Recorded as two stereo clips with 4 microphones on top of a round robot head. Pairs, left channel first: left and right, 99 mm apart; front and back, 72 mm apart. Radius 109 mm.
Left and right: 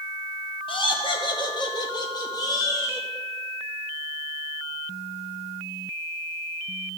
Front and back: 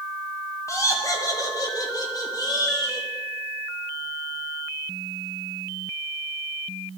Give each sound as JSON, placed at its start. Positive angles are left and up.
{"t": 0.7, "sound": "laughter", "azimuth_deg": 50, "distance_m": 2.0}